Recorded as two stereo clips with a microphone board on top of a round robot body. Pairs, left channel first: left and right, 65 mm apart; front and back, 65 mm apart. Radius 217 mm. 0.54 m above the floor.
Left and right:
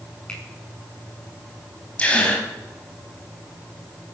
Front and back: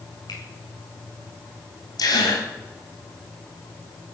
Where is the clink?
No clink in this recording.